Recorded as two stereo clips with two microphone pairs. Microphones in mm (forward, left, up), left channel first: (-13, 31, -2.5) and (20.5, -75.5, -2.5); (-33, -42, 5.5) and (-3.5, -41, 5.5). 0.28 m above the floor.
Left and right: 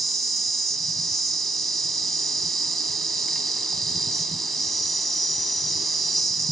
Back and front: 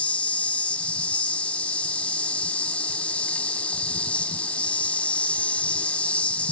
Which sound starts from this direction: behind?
An insect, at 0.0 s.